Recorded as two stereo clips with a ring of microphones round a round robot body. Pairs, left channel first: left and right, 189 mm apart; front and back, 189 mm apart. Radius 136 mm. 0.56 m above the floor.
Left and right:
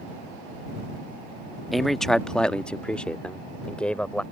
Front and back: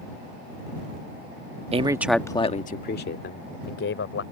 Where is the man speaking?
Straight behind; by 4.2 s 5° left.